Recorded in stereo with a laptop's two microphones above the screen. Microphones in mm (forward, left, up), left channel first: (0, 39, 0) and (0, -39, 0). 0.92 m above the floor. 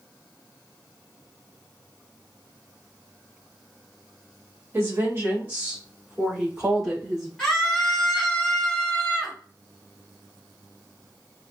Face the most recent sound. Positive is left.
turn(degrees=5)  # may be behind; listen again after turning